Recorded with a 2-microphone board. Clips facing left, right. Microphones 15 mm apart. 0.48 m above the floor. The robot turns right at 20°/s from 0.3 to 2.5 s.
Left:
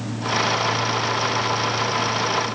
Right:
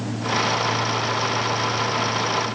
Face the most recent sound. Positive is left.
No sound to turn to.